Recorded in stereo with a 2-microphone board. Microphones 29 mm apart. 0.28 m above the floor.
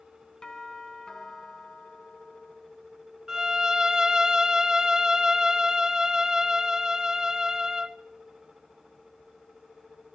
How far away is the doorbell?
About 3.5 m.